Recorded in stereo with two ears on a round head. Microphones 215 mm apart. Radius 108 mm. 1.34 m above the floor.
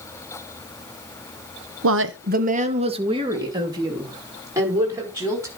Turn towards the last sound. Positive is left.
turn(degrees=-10)  # may be behind; listen again after turning